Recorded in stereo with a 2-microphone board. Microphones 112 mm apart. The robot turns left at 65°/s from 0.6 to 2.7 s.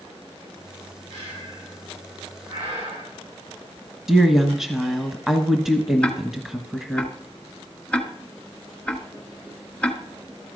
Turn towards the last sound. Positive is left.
turn(degrees=10)  # may be behind; listen again after turning